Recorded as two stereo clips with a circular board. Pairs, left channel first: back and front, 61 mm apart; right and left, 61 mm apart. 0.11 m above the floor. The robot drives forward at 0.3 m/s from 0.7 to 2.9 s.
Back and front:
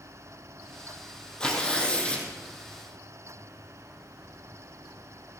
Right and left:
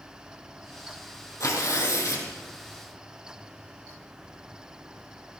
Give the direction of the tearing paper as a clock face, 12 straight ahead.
4 o'clock.